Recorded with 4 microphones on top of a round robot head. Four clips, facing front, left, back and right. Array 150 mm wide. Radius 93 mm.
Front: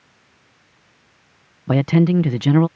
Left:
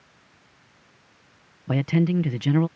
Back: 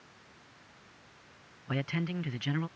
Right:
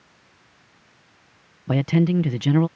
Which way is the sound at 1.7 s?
10° right.